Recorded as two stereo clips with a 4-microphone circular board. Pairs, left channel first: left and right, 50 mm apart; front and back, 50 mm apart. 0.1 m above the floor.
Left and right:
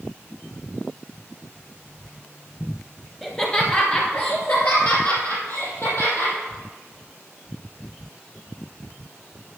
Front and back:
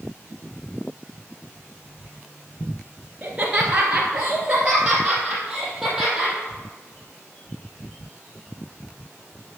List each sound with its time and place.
3.2 s laughter: 150° left, 1.3 m; by 6.3 s 100° left, 3.5 m